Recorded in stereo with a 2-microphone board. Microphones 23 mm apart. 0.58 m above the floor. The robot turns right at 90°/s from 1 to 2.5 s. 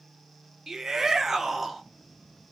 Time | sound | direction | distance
0.7 | a shout | 20° right (ahead or behind) | 0.6 m